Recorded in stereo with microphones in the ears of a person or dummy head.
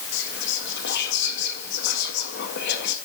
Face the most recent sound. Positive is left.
turn(degrees=60)  # may be behind; listen again after turning